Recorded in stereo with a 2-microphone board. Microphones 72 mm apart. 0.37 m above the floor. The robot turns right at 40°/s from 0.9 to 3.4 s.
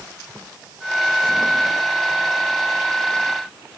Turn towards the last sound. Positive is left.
No sound to turn to.